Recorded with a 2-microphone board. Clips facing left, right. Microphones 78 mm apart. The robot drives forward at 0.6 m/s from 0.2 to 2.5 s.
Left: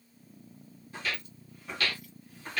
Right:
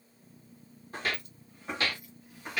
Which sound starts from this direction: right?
Footsteps, at 0.9 s.